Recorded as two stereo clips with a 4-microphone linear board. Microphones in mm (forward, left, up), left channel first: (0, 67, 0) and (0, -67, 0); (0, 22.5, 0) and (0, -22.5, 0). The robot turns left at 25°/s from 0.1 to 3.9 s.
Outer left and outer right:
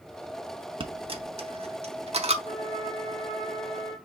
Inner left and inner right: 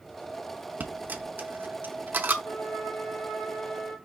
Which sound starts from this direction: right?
A dropped coin, at 0.8 s.